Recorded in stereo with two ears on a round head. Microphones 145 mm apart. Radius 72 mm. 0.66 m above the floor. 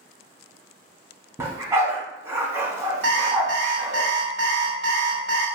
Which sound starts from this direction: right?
An alarm clock, at 3.0 s.